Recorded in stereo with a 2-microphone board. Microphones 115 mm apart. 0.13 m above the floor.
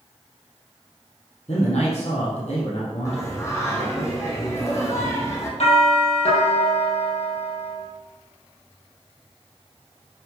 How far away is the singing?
About 2.5 m.